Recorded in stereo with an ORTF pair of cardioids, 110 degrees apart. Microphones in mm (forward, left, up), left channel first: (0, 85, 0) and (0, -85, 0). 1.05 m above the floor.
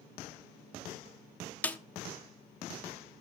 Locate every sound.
1.6 s a snare drum: 10° left, 1.0 m